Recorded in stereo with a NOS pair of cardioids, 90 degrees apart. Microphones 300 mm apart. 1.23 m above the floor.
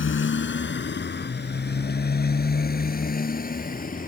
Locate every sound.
0.0 s a motorcycle: 40° left; by 4.1 s 30° left